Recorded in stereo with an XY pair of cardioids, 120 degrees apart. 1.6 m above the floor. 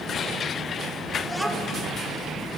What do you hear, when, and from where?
1.2 s a child speaking: 5° left, 3.5 m